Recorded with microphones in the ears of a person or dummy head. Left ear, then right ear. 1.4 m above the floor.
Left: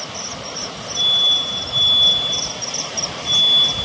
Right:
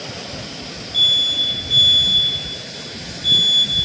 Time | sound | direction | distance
0.9 | an alarm | 65° right (ahead or behind) | 5.5 m